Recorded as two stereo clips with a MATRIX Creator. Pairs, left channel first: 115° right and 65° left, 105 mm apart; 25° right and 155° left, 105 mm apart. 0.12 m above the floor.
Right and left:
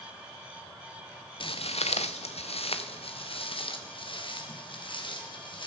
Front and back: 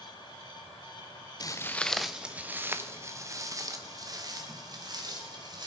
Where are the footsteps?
75° right, 0.6 m; by 5.7 s 155° right, 3.5 m.